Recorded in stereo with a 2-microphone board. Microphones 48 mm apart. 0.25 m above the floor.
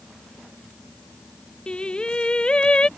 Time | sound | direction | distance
1.7 | singing | 20° left (ahead or behind) | ?